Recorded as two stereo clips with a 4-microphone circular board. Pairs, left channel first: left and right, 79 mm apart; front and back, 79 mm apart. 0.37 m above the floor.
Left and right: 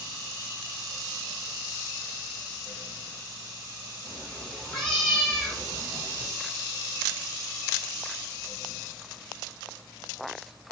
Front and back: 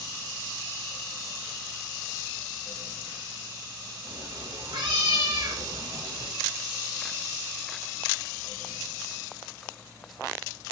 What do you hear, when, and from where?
4.0 s a cat meowing: 170° left, 6.5 m; by 6.3 s 175° left, 7.5 m